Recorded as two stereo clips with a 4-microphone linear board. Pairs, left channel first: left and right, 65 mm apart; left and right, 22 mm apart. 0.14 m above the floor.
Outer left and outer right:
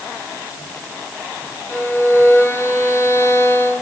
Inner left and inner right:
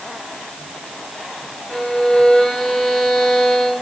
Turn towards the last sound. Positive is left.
turn(degrees=40)  # may be behind; listen again after turning